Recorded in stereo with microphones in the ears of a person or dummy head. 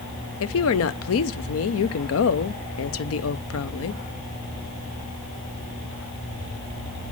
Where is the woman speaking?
70° left (ahead or behind), 0.7 m.